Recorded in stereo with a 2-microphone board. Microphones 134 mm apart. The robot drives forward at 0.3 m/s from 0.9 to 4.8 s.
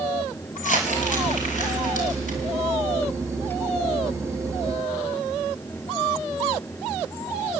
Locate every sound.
0.6 s crumpling: 75° left (ahead or behind), 5.5 m; by 2.4 s 70° left (ahead or behind), 5.5 m